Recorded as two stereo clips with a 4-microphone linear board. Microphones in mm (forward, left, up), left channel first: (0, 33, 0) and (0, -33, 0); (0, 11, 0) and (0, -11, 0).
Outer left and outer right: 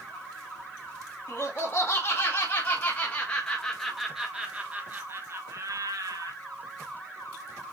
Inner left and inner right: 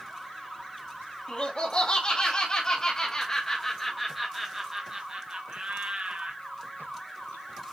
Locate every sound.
1.3 s laughter: 40° left (ahead or behind), 2 m; by 6.3 s 65° right (ahead or behind), 1.3 m